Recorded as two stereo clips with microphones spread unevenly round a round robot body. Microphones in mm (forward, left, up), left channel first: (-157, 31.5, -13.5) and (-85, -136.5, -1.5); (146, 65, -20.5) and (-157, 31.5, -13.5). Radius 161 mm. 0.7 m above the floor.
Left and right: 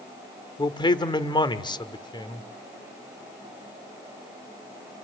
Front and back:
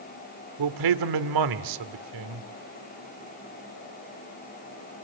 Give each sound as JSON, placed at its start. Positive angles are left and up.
{"t": 0.6, "sound": "a man speaking", "azimuth_deg": 180, "distance_m": 1.7}